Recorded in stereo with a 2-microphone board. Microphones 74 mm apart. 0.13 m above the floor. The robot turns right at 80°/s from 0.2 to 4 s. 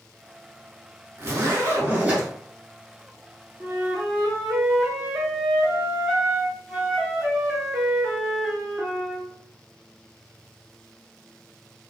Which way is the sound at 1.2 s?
105° right.